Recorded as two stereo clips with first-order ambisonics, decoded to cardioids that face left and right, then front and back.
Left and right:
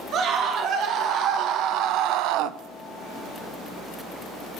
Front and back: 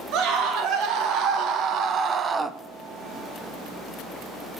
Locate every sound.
0.1 s a scream: 140° right, 2 m; by 2.6 s 100° right, 0.6 m